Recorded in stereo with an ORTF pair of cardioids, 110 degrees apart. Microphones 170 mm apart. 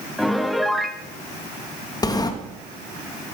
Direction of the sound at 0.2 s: Straight ahead.